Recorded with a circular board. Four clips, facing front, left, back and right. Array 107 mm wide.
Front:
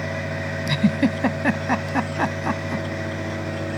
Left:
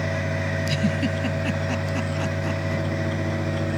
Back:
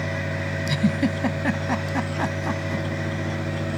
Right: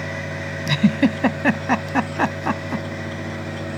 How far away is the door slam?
I don't hear a door slam.